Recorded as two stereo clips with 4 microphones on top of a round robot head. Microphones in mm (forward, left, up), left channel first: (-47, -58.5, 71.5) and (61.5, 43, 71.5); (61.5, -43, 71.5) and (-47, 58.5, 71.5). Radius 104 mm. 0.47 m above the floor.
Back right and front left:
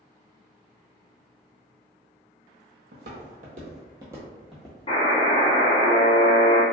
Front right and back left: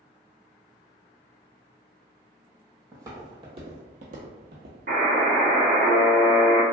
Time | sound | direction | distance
2.9 | footsteps | 65° left | 1.0 m
4.9 | a buzzer | 165° left | 0.8 m